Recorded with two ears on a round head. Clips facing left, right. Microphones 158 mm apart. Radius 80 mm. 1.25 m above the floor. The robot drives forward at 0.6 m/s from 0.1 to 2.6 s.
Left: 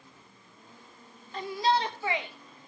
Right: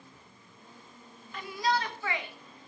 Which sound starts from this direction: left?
A shout, at 1.3 s.